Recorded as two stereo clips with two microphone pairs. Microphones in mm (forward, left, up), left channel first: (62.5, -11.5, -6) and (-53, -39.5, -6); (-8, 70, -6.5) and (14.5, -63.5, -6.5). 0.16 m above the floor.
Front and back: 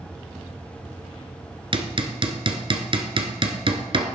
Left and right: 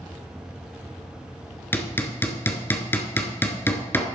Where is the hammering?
170° left, 1.6 m.